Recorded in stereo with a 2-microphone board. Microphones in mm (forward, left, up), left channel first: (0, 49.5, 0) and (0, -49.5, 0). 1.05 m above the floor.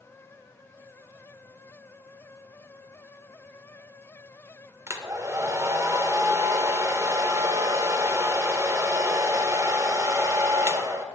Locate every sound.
4.9 s a hair dryer: 30° right (ahead or behind), 0.8 m